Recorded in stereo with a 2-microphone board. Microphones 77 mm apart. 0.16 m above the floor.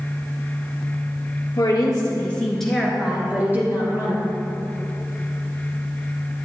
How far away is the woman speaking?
About 1.9 m.